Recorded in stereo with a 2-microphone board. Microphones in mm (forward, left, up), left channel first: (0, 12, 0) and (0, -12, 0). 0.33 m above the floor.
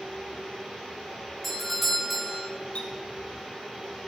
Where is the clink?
55° left (ahead or behind), 1.6 m.